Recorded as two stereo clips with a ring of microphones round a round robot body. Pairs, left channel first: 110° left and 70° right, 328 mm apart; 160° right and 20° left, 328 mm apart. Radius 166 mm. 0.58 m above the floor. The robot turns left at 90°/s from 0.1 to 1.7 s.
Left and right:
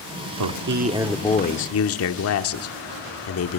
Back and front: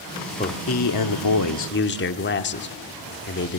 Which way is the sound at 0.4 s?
90° right.